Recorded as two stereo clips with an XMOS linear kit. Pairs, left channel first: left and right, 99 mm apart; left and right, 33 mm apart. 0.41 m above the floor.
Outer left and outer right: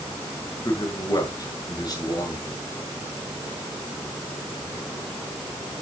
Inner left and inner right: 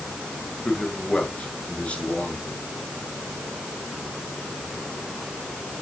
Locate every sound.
0.7 s a man speaking: 40° left (ahead or behind), 7 m